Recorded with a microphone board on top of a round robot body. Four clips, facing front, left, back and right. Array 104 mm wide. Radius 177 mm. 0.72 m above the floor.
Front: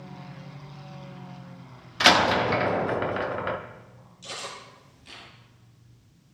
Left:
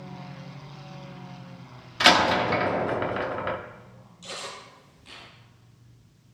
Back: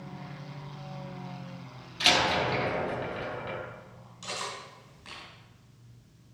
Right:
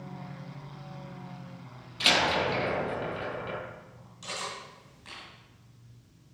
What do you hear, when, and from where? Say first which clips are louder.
2.0 s a door slam: left 7 dB, front 6 dB; 40° left, 0.7 m
4.2 s cutlery clinking: right 1 dB, back 1 dB; 150° right, 4.5 m